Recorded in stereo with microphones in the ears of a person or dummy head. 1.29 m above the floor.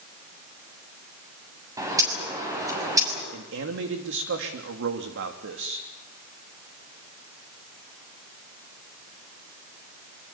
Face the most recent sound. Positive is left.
turn(degrees=-65)  # may be behind; listen again after turning